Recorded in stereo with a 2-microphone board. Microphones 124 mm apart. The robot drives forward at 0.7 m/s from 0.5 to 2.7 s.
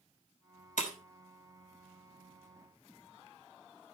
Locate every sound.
0.8 s breaking glass: 80° left, 2.5 m; by 1.0 s 75° left (ahead or behind), 2.5 m